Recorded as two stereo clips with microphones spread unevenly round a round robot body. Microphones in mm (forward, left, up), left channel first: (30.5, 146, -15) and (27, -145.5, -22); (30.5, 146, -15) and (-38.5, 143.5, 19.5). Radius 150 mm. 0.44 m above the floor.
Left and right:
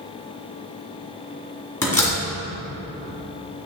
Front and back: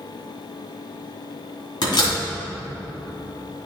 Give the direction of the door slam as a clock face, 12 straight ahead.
12 o'clock.